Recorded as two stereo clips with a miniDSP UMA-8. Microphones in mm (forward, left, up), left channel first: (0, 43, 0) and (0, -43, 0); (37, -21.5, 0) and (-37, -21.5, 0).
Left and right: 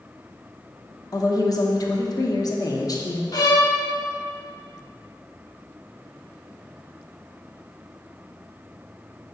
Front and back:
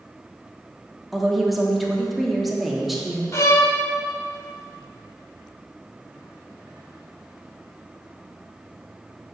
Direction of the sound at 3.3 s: 50° left.